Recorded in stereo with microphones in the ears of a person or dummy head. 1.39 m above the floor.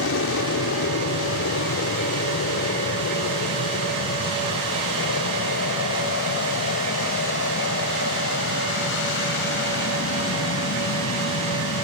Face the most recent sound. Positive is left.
turn(degrees=60)  # may be behind; listen again after turning